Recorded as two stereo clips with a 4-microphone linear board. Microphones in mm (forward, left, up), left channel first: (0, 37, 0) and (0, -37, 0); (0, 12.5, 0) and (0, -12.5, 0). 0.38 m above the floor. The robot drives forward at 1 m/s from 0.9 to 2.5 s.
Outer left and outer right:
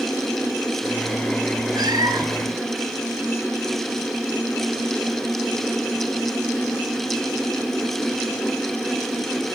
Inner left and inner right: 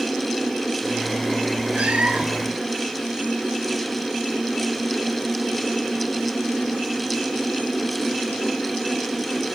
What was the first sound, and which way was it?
A cat meowing, 80° right.